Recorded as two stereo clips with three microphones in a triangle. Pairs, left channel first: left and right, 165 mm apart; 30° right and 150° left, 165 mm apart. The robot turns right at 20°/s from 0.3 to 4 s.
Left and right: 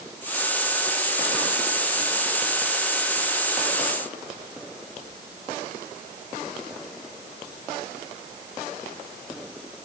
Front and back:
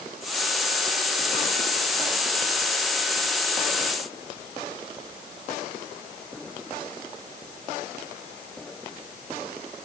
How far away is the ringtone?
I don't hear a ringtone.